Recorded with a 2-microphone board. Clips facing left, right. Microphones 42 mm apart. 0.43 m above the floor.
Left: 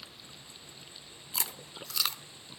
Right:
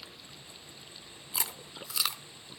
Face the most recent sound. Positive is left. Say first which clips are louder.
# right 1 dB
turn(degrees=-10)  # may be behind; listen again after turning